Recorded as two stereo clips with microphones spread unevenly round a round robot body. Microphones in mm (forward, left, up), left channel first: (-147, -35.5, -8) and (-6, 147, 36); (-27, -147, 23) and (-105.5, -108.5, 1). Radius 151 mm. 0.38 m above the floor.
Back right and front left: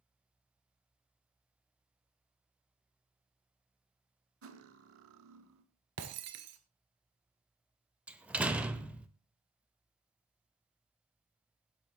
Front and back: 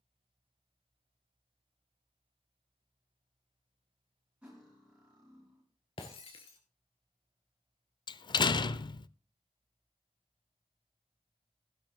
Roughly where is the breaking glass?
Ahead.